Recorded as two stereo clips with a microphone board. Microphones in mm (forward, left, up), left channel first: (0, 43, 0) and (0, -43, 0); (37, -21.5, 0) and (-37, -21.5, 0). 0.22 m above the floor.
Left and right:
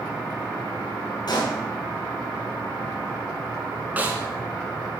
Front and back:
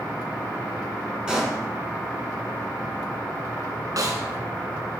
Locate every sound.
1.3 s a pop: 100° left, 2.5 m
4.0 s a snare drum: 155° right, 1.4 m